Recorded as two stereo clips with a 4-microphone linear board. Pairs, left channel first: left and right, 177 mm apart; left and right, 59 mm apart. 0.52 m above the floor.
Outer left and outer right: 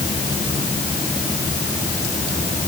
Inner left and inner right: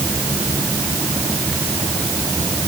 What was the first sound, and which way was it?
Only background noise.